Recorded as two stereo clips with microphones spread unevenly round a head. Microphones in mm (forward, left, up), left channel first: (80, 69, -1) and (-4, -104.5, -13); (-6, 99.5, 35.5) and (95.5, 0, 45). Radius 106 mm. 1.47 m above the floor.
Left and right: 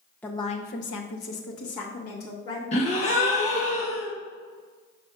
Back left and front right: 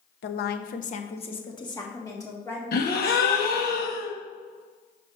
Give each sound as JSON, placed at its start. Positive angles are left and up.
{"t": 0.2, "sound": "a woman speaking", "azimuth_deg": 145, "distance_m": 0.8}
{"t": 2.7, "sound": "a gasp", "azimuth_deg": 125, "distance_m": 1.3}